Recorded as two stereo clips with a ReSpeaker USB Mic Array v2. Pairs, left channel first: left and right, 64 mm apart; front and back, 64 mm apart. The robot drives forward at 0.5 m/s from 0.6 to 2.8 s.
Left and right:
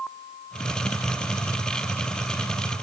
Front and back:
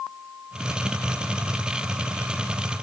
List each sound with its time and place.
Only background noise.